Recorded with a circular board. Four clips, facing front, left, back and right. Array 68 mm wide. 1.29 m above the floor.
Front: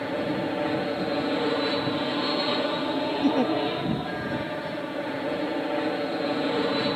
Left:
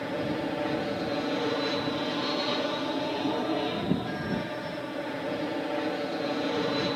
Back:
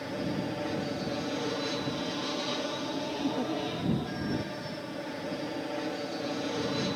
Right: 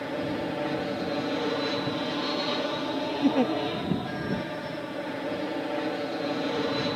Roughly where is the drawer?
I don't hear a drawer.